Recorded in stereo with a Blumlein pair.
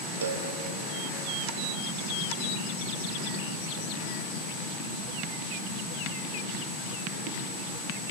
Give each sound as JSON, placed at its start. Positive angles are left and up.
{"t": 0.2, "sound": "a cowbell", "azimuth_deg": -65, "distance_m": 1.1}